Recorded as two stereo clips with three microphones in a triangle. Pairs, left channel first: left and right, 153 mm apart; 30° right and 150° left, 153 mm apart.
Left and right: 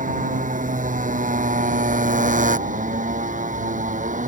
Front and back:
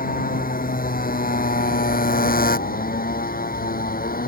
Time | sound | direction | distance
0.0 | a motorcycle | 55° right | ?